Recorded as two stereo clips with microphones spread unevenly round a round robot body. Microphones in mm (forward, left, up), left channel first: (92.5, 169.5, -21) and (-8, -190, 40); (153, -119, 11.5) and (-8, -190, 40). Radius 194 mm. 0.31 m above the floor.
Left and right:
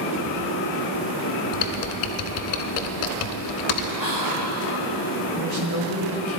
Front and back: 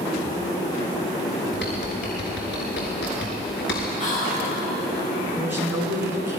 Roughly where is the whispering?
Ahead.